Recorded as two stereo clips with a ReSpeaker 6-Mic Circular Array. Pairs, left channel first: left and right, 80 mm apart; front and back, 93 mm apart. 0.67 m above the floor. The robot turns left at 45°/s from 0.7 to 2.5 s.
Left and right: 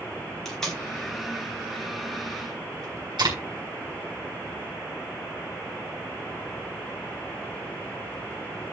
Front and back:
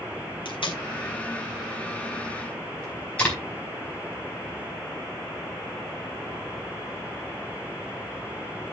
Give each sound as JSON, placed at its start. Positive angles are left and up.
{"t": 0.5, "sound": "tape being pulled", "azimuth_deg": 5, "distance_m": 4.5}